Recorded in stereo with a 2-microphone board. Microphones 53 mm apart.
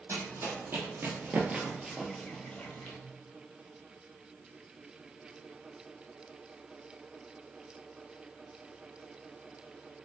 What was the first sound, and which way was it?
Running footsteps, 55° right (ahead or behind).